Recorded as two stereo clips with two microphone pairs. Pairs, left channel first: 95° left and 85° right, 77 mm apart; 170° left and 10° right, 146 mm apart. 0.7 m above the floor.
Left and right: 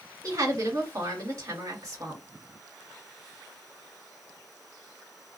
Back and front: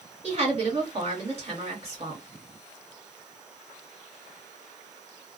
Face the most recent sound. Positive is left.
turn(degrees=-50)